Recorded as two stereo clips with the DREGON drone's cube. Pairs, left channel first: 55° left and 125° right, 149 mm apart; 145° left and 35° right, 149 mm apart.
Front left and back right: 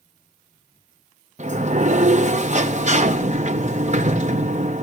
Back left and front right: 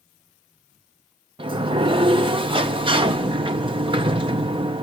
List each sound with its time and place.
1.4 s a sliding door: 90° right, 0.6 m